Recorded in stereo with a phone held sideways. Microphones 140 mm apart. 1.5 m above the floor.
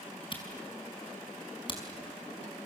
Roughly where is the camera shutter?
Left.